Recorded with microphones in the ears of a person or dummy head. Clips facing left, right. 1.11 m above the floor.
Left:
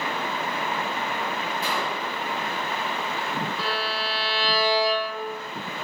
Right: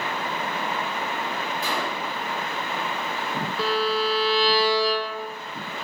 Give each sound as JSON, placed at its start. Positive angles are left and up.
{"t": 1.6, "sound": "a gunshot", "side_deg": -75, "distance_m": 1.5}
{"t": 3.6, "sound": "a violin", "side_deg": -65, "distance_m": 0.9}